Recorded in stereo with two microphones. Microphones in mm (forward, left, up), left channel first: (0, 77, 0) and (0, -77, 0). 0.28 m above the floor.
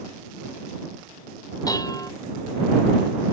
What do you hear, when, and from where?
1.7 s dishes clattering: 25° left (ahead or behind)